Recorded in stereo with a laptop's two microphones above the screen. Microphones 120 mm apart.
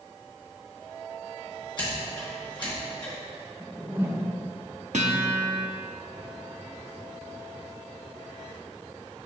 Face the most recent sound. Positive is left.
turn(degrees=-75)  # may be behind; listen again after turning